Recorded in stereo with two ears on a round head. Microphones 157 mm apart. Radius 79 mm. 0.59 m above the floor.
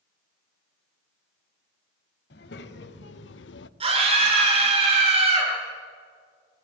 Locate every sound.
2.3 s a child speaking: 75° left (ahead or behind), 1.9 m; by 3.7 s 70° left (ahead or behind), 0.7 m
3.8 s a scream: 35° right (ahead or behind), 8.5 m